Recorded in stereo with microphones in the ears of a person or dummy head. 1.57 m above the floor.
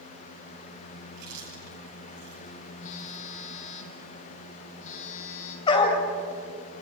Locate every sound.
1.1 s chewing: 65° right (ahead or behind), 10 m
2.8 s a phone buzzing: 45° left (ahead or behind), 4 m
5.7 s a dog barking: 25° left (ahead or behind), 3.5 m